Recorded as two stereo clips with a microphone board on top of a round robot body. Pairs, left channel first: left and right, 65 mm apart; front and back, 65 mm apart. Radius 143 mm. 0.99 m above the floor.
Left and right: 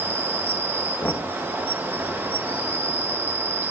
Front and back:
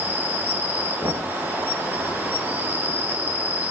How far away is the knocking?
About 1.8 m.